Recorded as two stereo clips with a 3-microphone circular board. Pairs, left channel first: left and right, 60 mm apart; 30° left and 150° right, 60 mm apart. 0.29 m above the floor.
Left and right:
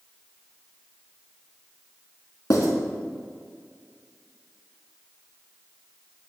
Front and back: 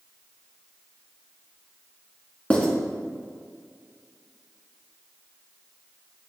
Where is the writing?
95° left, 1.4 m.